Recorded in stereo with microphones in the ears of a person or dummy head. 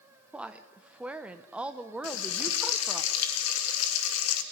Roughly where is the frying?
Left.